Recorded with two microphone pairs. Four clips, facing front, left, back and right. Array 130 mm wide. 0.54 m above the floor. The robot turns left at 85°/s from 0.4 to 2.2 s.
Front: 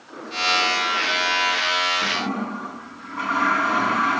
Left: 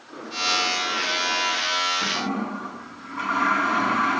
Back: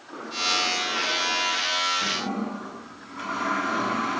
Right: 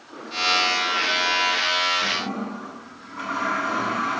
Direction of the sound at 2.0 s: 45° left.